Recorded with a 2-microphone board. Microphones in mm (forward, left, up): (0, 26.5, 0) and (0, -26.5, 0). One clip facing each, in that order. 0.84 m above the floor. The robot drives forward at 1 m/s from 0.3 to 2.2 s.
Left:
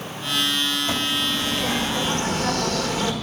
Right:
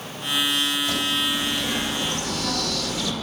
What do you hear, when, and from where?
0.9 s a bird: 20° left (ahead or behind), 2.5 m; by 3.1 s 35° left (ahead or behind), 1.4 m